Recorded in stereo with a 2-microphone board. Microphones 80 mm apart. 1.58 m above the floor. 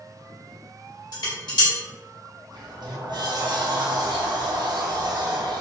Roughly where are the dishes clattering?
Left.